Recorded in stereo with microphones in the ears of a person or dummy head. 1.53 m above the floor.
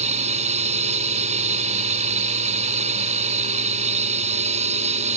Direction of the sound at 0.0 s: 35° right (ahead or behind).